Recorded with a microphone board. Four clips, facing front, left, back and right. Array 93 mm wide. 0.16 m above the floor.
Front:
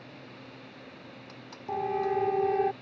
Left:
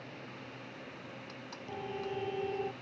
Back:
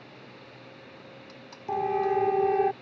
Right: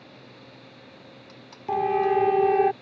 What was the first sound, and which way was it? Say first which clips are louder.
A siren: right 17 dB, back 3 dB; 100° right.